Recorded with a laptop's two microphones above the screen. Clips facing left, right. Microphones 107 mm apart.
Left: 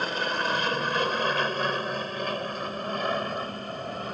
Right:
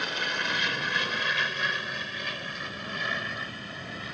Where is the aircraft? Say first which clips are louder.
Left 4 dB; 40° left (ahead or behind); by 4.1 s 45° left (ahead or behind).